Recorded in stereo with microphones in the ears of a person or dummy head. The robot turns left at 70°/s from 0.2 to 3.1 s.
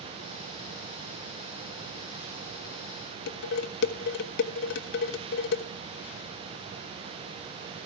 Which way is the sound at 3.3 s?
60° left (ahead or behind).